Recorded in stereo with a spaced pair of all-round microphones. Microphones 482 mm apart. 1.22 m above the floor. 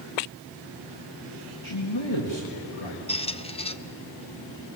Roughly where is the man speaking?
Left.